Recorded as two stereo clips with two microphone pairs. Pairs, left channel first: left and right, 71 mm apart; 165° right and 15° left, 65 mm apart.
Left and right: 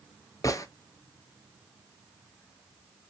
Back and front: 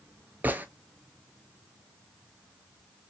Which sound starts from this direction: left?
A gunshot, at 0.4 s.